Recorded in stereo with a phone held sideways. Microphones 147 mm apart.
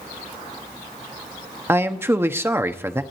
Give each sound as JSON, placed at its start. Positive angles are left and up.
{"t": 1.7, "sound": "a man speaking", "side_deg": -15, "distance_m": 1.1}